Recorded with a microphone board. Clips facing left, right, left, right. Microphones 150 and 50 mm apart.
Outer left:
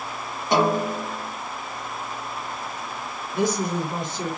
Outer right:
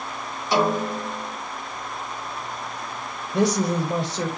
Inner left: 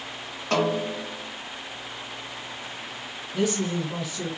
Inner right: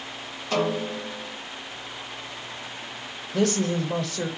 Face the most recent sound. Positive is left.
turn(degrees=-75)  # may be behind; listen again after turning